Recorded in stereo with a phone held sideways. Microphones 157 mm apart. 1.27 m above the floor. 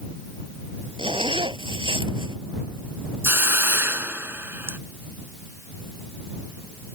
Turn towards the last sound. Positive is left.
turn(degrees=-15)  # may be behind; listen again after turning